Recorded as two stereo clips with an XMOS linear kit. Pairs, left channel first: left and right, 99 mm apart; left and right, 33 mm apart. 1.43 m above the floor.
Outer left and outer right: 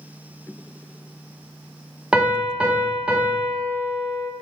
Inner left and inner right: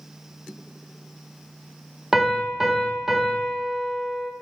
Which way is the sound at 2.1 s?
10° right (ahead or behind).